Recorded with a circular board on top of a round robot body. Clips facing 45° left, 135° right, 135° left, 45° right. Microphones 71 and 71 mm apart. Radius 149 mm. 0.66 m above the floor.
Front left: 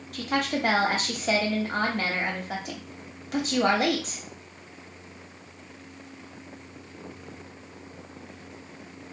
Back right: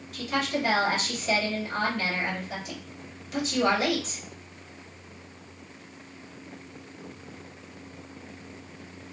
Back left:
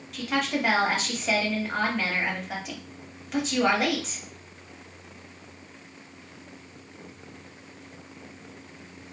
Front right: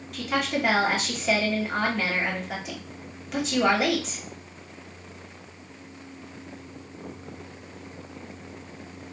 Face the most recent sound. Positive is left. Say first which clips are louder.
# front left 1 dB, front right 1 dB
turn(degrees=45)